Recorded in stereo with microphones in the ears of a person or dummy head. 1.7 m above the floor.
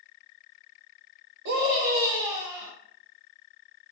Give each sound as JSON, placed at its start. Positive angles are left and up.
{"t": 1.4, "sound": "a scream", "side_deg": -60, "distance_m": 0.7}